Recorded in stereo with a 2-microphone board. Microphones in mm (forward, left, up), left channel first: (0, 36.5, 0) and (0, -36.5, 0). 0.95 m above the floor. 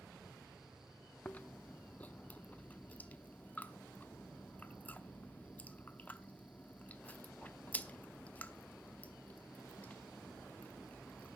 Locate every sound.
1.2 s chewing: 20° left (ahead or behind), 0.7 m